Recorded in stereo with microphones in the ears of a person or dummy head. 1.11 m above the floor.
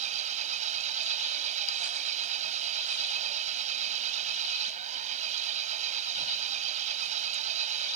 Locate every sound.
0.0 s an engine running: 40° right (ahead or behind)